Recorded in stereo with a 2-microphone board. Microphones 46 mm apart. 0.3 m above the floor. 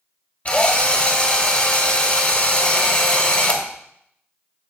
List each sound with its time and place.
0.5 s a drill: 30° left (ahead or behind), 1.2 m